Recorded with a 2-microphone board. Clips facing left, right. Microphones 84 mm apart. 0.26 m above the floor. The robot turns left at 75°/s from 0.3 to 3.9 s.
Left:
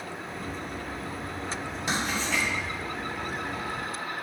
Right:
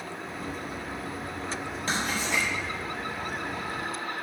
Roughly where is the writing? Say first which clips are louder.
Even; centre.